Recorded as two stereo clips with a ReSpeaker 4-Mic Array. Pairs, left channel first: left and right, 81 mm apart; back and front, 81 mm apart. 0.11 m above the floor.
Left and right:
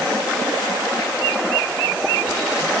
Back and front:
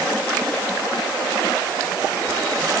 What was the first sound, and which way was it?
Only background noise.